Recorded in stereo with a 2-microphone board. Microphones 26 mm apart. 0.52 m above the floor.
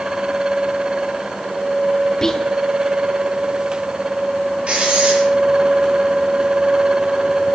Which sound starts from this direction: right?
Writing, at 4.7 s.